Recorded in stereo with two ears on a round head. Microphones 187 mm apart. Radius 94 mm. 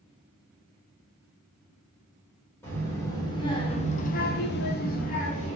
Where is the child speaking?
10° left (ahead or behind), 1.2 m; by 5.6 s 30° left (ahead or behind), 0.8 m.